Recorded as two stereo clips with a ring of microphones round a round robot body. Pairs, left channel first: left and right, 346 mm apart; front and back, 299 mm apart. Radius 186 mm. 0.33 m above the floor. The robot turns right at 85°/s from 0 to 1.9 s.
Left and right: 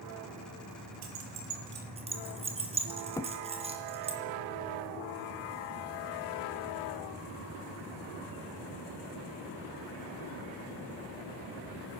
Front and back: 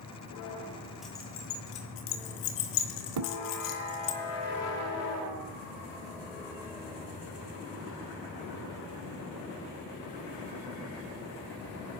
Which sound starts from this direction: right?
Keys jangling, at 1.0 s.